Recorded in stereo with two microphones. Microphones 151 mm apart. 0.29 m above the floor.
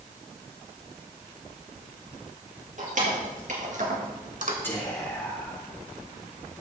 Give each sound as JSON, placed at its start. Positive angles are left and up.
{"t": 2.8, "sound": "keys jangling", "side_deg": -55, "distance_m": 4.0}
{"t": 4.6, "sound": "whispering", "side_deg": 15, "distance_m": 4.0}